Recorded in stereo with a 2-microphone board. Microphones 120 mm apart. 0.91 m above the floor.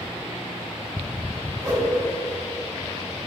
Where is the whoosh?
25° right (ahead or behind), 2.5 m.